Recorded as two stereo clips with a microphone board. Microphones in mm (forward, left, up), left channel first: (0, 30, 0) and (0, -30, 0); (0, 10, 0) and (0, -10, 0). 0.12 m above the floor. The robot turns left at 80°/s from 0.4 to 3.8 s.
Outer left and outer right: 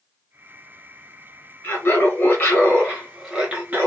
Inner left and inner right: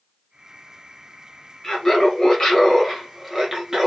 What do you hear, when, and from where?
1.6 s laughter: 125° left, 1.6 m; by 3.9 s 50° right, 1.6 m